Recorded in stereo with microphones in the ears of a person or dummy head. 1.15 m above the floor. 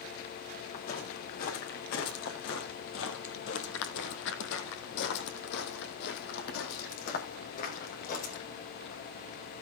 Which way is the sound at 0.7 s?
50° left (ahead or behind).